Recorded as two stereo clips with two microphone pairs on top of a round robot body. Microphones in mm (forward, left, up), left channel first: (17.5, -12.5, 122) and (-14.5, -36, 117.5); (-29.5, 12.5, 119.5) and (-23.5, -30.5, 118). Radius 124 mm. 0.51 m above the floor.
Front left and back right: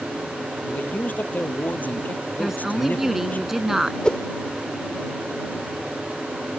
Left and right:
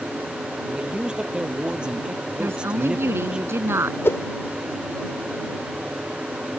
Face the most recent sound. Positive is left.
turn(degrees=110)